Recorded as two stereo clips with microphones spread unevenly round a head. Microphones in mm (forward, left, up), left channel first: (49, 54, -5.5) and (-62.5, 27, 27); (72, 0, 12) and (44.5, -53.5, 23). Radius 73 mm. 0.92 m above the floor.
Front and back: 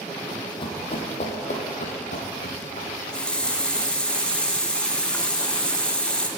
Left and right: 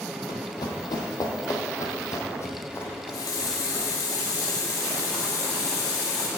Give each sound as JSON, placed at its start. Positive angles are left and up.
{"t": 0.3, "sound": "running footsteps", "azimuth_deg": 75, "distance_m": 1.8}
{"t": 2.9, "sound": "a running tap", "azimuth_deg": 95, "distance_m": 1.0}